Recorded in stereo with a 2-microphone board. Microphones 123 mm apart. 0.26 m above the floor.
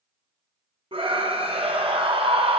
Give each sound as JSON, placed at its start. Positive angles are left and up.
{"t": 0.9, "sound": "a scream", "side_deg": -50, "distance_m": 2.0}